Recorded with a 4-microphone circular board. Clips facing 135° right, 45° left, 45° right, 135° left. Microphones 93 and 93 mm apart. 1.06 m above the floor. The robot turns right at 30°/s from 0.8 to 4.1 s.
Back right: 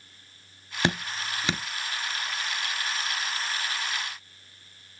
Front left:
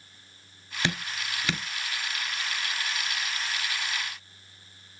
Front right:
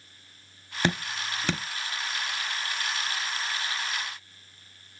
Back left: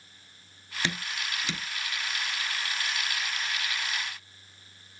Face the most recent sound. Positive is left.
turn(degrees=5)